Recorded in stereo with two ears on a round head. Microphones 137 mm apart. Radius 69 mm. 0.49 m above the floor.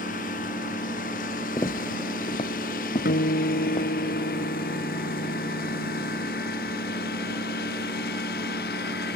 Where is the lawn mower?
55° left (ahead or behind); by 9.2 s 65° left (ahead or behind).